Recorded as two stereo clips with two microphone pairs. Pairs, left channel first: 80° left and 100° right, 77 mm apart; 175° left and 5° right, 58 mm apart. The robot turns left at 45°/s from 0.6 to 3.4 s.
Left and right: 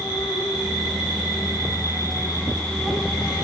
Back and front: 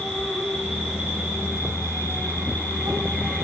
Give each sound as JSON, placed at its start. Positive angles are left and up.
{"t": 0.0, "sound": "an insect", "azimuth_deg": 90, "distance_m": 6.0}